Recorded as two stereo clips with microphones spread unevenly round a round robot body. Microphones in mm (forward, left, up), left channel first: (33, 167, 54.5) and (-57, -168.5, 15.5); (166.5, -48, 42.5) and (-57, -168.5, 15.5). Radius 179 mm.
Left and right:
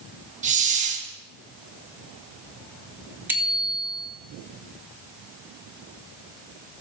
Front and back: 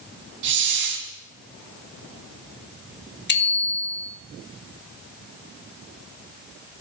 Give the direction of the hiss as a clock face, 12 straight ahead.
6 o'clock.